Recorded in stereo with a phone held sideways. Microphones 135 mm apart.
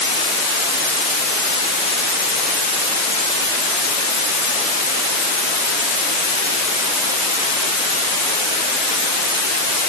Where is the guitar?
I don't hear a guitar.